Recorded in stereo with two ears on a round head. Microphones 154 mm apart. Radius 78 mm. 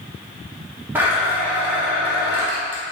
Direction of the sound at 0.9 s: 10° right (ahead or behind).